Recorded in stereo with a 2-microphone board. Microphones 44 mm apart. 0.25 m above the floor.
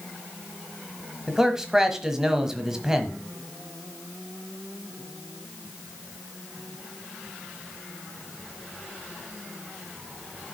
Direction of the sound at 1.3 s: 10° right (ahead or behind).